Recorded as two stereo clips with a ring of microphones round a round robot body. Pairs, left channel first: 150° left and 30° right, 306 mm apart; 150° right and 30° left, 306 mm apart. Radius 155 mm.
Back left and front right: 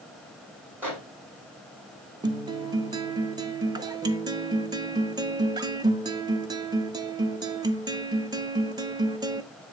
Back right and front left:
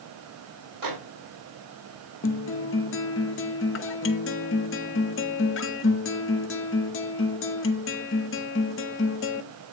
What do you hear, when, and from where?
0.8 s a microwave: 55° left, 5 m
2.2 s a guitar: 105° right, 0.8 m